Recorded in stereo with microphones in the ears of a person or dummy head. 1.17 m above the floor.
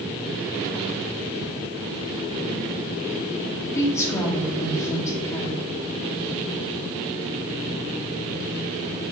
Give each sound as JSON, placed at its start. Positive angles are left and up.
{"t": 3.8, "sound": "a woman speaking", "side_deg": 20, "distance_m": 2.5}